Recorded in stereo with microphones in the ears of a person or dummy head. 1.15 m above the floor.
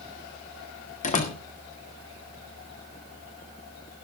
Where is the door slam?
35° left (ahead or behind), 1.7 m.